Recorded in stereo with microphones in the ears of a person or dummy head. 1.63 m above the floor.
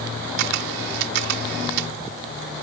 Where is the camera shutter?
60° right (ahead or behind).